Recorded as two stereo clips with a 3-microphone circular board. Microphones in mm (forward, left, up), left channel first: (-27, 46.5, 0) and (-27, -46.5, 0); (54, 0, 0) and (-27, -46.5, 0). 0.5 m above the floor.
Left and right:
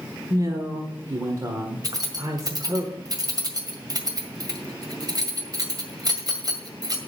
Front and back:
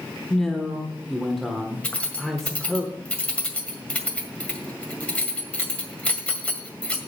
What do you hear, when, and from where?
0.3 s a man speaking: 55° right, 1.3 m
1.8 s keys jangling: 45° right, 1.9 m